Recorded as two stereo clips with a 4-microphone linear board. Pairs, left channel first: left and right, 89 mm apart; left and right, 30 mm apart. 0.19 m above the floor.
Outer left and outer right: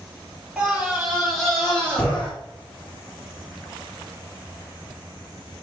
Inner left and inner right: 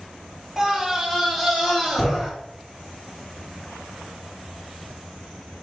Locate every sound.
0.6 s a scream: 5° right (ahead or behind), 3.5 m; by 2.3 s 15° left (ahead or behind), 4.5 m